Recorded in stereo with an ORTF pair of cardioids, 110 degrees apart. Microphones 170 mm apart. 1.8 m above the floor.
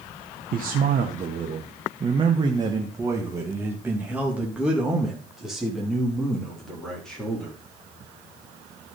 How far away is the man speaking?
About 1.4 m.